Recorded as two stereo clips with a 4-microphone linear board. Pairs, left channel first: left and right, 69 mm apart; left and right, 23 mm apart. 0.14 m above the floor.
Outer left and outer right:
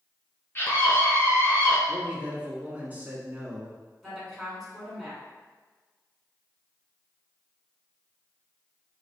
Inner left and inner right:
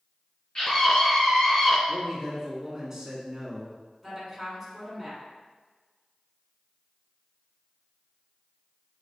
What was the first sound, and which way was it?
A scream, 35° left (ahead or behind).